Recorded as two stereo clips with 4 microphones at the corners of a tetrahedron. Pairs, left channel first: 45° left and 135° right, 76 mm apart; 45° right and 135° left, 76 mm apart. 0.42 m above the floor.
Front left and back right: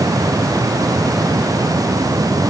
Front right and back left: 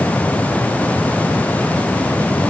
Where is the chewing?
No chewing in this recording.